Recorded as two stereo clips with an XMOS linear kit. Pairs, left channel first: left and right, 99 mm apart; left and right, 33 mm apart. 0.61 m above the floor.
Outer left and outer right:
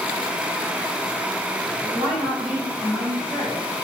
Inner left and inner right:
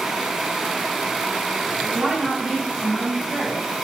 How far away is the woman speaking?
About 3.5 m.